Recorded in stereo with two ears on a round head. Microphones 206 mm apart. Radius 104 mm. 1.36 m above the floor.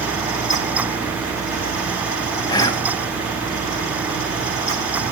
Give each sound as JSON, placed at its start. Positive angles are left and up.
{"t": 2.5, "sound": "whispering", "side_deg": 20, "distance_m": 0.5}